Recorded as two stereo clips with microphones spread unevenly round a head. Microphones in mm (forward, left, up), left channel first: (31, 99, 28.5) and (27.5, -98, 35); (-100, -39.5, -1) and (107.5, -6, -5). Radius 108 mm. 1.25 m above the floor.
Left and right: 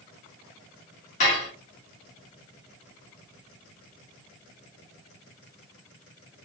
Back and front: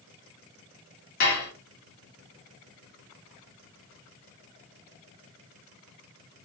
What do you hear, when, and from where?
1.2 s dishes clattering: 145° left, 0.9 m